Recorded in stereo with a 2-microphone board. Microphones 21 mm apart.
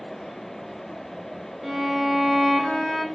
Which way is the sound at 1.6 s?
Centre (ahead or behind).